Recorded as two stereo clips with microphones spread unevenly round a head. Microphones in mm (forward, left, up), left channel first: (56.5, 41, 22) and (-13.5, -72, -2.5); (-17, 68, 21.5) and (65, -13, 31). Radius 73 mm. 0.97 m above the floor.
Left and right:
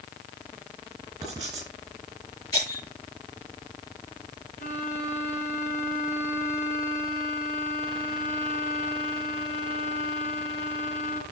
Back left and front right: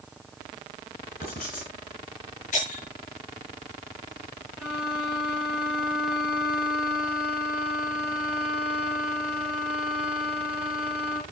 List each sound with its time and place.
1.2 s writing: 170° left, 3.5 m
2.5 s breaking glass: 125° left, 6 m
4.6 s a violin: 40° left, 4.5 m